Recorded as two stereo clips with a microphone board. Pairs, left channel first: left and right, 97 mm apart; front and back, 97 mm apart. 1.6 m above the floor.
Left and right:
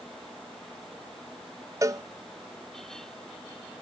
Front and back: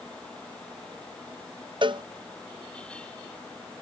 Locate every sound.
1.8 s a cowbell: 145° right